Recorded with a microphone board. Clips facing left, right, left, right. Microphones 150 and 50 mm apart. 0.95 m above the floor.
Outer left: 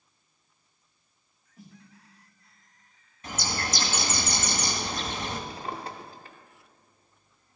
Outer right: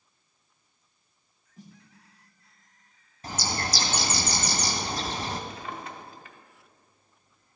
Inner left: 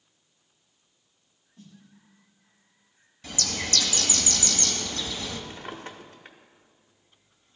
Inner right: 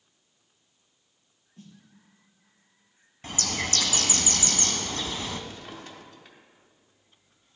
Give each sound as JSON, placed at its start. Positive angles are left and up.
{"t": 1.6, "sound": "a snare drum", "side_deg": -40, "distance_m": 3.5}
{"t": 3.2, "sound": "a bird", "side_deg": -35, "distance_m": 1.2}
{"t": 5.5, "sound": "a drawer", "side_deg": 35, "distance_m": 1.0}